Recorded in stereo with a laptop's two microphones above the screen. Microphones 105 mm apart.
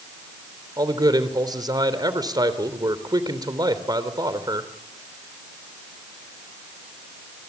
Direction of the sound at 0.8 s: 40° right (ahead or behind).